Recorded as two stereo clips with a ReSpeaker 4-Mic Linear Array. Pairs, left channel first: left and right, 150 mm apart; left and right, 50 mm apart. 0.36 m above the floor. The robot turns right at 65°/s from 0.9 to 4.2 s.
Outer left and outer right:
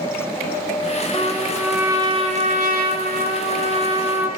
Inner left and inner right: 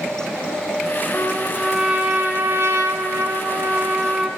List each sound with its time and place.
1.1 s a trumpet: 150° left, 1.4 m; by 4.3 s 15° right, 1.4 m